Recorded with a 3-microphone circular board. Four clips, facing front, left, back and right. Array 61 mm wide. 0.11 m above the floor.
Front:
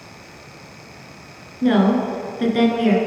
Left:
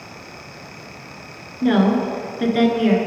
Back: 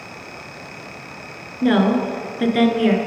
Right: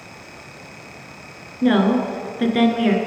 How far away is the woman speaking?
About 1.1 m.